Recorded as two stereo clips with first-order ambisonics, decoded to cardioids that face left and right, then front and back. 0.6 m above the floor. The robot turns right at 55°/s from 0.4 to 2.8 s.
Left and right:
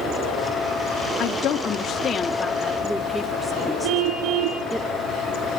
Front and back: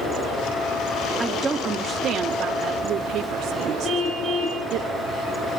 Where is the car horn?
80° right, 6 m.